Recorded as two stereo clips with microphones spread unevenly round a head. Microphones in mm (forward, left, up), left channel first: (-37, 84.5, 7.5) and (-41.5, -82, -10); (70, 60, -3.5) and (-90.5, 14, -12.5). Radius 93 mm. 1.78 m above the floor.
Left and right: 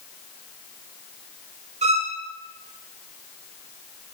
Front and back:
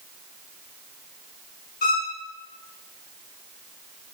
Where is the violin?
30° right, 3 m.